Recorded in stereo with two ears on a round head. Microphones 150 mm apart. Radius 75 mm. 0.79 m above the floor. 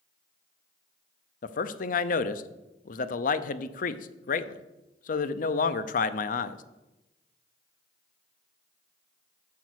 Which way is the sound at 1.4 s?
50° left (ahead or behind).